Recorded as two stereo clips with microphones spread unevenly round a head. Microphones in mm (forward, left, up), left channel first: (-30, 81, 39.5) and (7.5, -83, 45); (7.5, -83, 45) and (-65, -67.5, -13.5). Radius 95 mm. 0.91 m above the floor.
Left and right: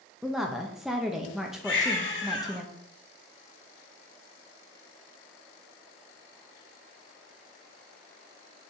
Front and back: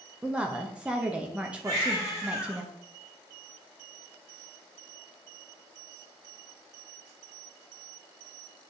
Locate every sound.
0.2 s a woman speaking: 165° right, 0.8 m
1.6 s a baby crying: 115° left, 3 m